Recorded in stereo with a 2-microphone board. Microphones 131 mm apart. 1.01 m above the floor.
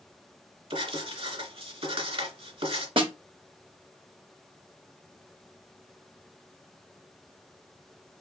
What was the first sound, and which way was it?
Writing, 50° right (ahead or behind).